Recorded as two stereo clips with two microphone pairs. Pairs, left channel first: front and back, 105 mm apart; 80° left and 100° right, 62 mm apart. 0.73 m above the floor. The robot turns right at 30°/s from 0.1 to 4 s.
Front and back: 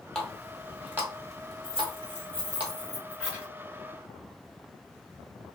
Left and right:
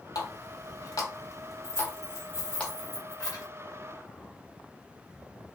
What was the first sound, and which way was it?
A running tap, 80° left.